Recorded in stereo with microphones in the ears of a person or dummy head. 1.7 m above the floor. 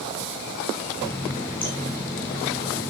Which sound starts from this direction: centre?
A running tap, at 1.0 s.